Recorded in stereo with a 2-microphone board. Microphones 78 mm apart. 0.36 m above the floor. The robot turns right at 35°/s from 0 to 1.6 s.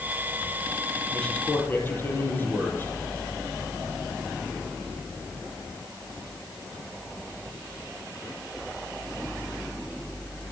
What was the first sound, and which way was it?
A man speaking, 5° left (ahead or behind).